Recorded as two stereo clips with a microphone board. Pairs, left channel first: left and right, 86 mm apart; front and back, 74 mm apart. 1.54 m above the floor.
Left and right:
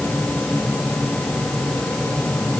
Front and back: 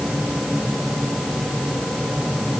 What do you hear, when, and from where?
Only background noise.